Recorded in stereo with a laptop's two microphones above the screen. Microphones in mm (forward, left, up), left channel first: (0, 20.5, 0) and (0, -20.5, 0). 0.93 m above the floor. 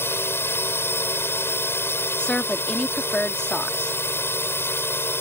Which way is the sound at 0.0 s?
75° left (ahead or behind).